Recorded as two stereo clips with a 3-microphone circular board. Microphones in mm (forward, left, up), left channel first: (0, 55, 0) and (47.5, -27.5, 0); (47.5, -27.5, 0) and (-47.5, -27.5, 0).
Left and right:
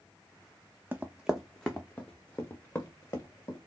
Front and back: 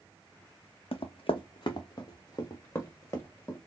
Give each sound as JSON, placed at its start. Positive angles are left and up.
{"t": 0.9, "sound": "running footsteps", "azimuth_deg": 10, "distance_m": 0.7}